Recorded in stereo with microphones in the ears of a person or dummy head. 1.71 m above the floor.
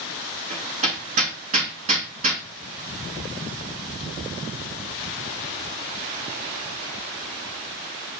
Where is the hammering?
35° right (ahead or behind), 2.5 m.